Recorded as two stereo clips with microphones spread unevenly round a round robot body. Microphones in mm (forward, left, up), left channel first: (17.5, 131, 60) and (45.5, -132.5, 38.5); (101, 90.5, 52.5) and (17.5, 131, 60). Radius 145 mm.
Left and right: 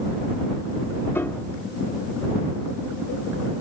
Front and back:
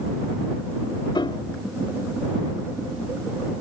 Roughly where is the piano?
Ahead.